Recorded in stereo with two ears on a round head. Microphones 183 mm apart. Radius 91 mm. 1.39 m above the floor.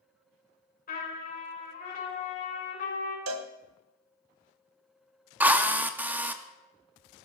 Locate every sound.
0.9 s a trumpet: 45° left (ahead or behind), 5.5 m
3.3 s a cowbell: 75° right (ahead or behind), 1.2 m
5.4 s a drill: 10° right (ahead or behind), 1.0 m